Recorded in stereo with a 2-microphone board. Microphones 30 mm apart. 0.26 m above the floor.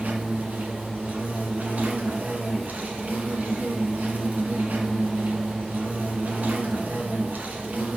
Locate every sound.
0.0 s an insect: 65° right (ahead or behind), 1.8 m